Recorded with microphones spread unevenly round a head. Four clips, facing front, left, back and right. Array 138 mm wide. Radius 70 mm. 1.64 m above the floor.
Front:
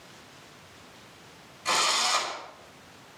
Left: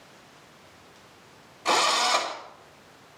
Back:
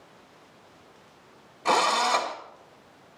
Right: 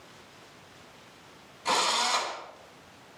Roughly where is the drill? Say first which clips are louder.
Left 4 dB, back 6 dB; behind.